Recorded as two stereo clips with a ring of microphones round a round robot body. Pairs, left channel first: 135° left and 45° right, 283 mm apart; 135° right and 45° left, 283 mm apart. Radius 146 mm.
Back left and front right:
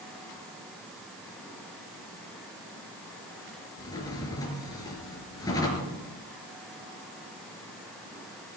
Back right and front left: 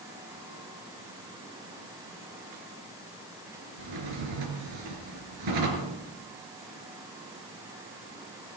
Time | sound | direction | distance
3.8 | a drawer | 55° left | 4 m